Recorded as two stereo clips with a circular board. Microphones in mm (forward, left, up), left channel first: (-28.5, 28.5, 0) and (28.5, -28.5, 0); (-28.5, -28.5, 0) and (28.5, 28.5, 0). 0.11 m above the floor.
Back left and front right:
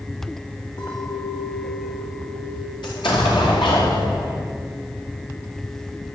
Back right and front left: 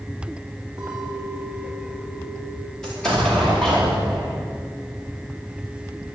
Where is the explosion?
140° left, 4.5 m.